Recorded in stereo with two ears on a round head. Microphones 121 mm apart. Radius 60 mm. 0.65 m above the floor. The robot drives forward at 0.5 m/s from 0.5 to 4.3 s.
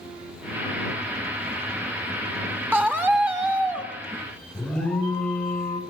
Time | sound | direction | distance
2.7 | a scream | 15° right (ahead or behind) | 3 m
4.5 | an alarm | 10° left (ahead or behind) | 4 m